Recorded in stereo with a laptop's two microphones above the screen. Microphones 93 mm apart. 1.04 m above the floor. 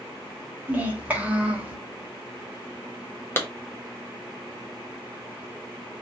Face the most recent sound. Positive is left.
turn(degrees=25)  # may be behind; listen again after turning